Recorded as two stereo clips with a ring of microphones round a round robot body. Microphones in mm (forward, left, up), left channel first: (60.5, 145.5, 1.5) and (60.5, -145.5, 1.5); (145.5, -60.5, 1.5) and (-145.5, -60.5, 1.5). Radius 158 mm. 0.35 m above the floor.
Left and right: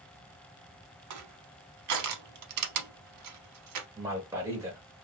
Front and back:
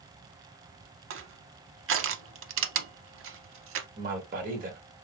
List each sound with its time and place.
1.1 s crushing: 130° right, 0.6 m
4.0 s a man speaking: 160° right, 1.0 m